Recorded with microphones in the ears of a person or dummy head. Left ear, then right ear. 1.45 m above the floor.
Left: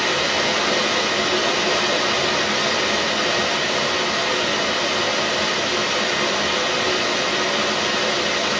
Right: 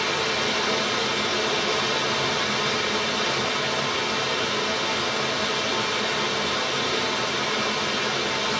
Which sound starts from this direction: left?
Running water, at 0.0 s.